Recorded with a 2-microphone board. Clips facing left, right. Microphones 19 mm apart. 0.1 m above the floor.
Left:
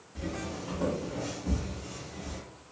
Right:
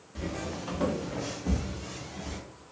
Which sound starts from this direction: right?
Footsteps, at 0.1 s.